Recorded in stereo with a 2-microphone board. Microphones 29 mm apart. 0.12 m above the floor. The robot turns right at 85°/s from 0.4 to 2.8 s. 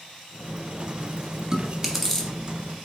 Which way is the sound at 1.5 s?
20° right (ahead or behind).